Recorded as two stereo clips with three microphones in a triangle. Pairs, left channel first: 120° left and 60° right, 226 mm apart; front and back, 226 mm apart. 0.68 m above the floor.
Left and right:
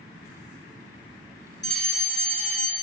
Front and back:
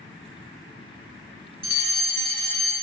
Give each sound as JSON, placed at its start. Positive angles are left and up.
{"t": 1.6, "sound": "a fire alarm", "azimuth_deg": 120, "distance_m": 2.5}